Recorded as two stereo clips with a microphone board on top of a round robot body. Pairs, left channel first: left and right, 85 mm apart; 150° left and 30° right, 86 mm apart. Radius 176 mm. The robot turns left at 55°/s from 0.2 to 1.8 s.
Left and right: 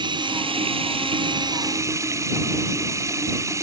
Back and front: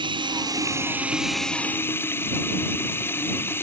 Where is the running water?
60° right; by 3.6 s 145° right.